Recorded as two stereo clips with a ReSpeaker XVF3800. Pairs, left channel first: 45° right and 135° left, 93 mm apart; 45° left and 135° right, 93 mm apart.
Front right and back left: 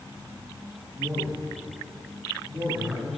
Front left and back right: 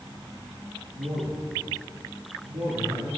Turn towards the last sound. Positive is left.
turn(degrees=-160)